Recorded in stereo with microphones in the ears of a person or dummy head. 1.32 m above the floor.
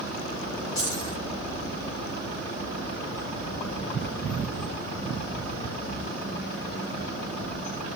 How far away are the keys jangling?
About 9.5 m.